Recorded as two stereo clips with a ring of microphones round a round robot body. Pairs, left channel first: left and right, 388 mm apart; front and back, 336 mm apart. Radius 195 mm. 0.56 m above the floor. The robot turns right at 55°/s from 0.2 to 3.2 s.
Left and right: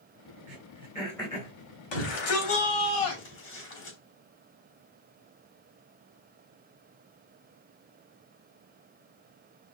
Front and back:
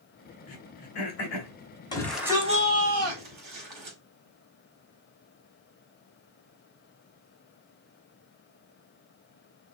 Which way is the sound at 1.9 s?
75° left.